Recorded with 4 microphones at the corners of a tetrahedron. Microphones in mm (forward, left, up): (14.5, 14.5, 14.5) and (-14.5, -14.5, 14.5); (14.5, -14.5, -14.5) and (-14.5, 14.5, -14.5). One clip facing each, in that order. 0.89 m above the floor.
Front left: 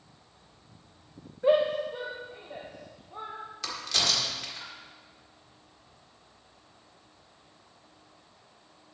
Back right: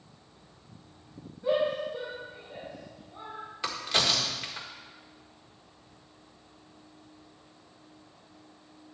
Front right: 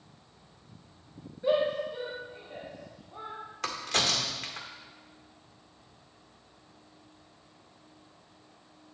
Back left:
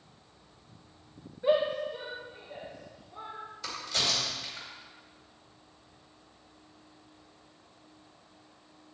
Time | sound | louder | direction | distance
1.4 | a shout | front left 4 dB, even | 65° left | 1.3 m
3.6 | a crack | back right 2 dB, front right 3 dB | 70° right | 1.6 m